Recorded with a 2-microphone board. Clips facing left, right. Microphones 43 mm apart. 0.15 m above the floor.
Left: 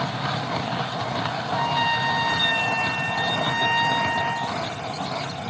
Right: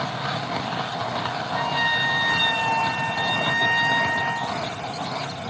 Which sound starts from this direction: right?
A trumpet, at 1.5 s.